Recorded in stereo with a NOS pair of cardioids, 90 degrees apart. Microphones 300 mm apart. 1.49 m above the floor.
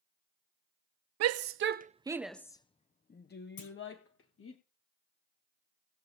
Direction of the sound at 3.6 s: 70° left.